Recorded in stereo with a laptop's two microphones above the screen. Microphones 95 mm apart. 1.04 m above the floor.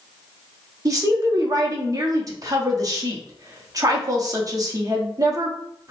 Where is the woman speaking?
40° right (ahead or behind), 0.6 m.